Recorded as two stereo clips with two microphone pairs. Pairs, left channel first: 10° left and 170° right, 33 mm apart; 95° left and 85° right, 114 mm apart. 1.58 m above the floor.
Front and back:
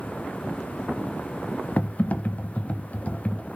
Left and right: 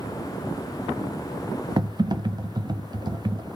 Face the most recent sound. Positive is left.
turn(degrees=-35)